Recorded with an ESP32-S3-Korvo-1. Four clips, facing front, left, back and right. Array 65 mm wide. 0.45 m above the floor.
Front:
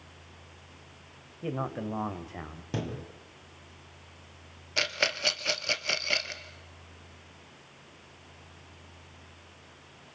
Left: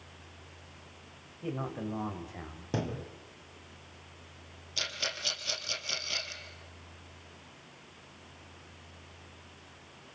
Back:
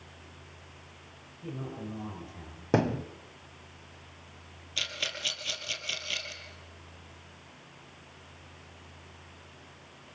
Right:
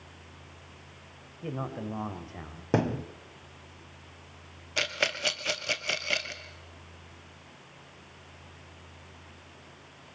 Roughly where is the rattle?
Ahead right.